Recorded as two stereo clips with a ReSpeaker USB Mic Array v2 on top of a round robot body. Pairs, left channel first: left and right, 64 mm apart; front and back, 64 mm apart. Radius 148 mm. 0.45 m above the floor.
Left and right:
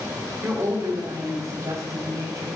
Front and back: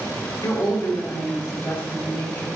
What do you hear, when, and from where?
0.4 s a woman speaking: 35° right, 2.5 m; by 2.5 s 55° right, 5 m